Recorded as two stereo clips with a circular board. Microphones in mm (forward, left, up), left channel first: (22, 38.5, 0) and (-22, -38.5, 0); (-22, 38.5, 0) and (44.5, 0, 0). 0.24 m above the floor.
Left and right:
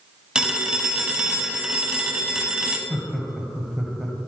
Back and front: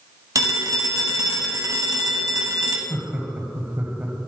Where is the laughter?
25° right, 1.2 m.